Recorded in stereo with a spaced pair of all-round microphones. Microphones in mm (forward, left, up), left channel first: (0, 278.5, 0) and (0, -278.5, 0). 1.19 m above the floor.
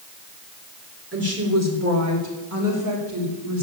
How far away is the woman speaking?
About 4 m.